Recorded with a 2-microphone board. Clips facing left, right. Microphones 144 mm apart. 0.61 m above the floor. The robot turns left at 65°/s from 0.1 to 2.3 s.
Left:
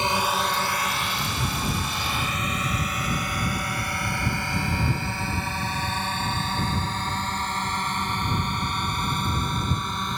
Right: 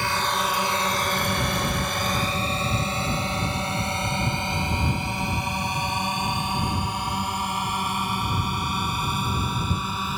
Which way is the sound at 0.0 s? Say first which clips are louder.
Left 1 dB; 20° left (ahead or behind).